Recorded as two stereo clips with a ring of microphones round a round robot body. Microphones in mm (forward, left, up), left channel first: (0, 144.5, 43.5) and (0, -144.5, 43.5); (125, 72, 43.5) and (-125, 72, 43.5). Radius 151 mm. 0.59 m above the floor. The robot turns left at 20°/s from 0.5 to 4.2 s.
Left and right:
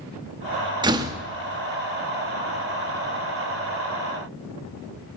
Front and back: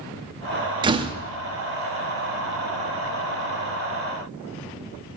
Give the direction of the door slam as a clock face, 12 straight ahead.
5 o'clock.